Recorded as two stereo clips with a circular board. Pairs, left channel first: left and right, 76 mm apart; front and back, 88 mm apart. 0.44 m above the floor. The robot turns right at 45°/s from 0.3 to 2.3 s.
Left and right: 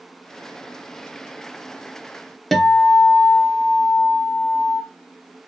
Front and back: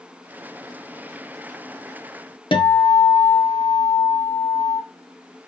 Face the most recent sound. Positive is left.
turn(degrees=5)